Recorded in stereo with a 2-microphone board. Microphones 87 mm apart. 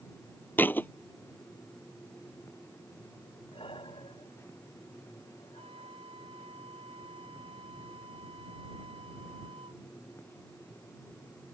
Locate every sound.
0.6 s a thud: 20° left (ahead or behind)
3.5 s breathing: 80° left
5.6 s a flute: 85° right